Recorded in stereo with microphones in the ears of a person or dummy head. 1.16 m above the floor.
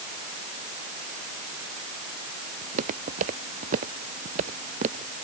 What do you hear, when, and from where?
2.6 s footsteps: 45° right (ahead or behind); by 5.1 s 35° right (ahead or behind)